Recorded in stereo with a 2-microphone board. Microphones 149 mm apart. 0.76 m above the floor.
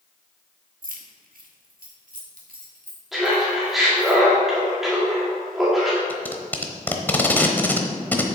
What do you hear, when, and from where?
0.8 s keys jangling: 70° right (ahead or behind), 1.2 m; by 4.1 s 60° right (ahead or behind), 4 m
3.1 s laughter: centre (ahead or behind), 2 m
6.1 s tape being pulled: 15° left (ahead or behind), 1.0 m